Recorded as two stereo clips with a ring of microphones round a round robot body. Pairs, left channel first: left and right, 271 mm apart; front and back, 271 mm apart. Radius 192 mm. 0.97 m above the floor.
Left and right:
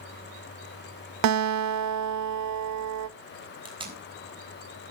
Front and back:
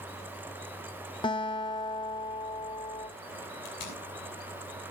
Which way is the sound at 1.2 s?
75° right.